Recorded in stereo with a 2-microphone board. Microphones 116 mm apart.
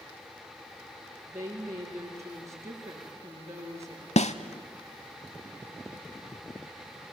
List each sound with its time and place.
1.3 s a woman speaking: 25° right (ahead or behind), 7 m
4.2 s a snare drum: 75° left (ahead or behind), 0.7 m